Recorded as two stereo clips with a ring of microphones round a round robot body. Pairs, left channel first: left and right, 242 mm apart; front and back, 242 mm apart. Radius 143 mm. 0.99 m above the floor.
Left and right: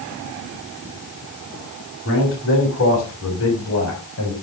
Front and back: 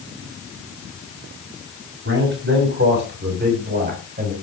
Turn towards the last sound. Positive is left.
turn(degrees=125)